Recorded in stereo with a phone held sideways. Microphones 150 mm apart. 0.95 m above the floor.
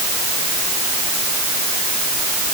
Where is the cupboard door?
I don't hear a cupboard door.